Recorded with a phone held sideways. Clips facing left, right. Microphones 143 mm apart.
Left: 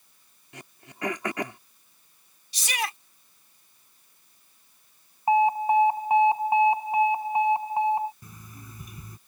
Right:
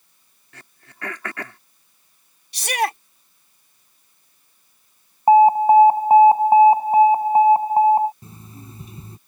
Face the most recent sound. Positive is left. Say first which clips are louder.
# right 6 dB
turn(degrees=-30)  # may be behind; listen again after turning